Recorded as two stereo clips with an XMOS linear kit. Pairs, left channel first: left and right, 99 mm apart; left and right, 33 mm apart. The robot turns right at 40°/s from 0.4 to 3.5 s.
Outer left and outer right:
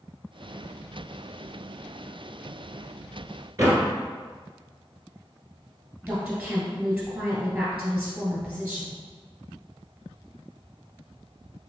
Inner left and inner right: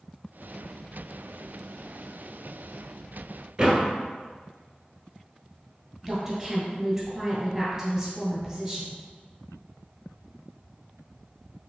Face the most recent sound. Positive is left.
turn(degrees=-20)  # may be behind; listen again after turning